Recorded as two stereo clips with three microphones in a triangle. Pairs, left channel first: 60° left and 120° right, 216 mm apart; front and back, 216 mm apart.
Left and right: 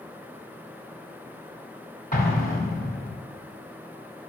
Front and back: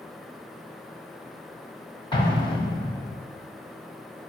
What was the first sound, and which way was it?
An explosion, 55° left.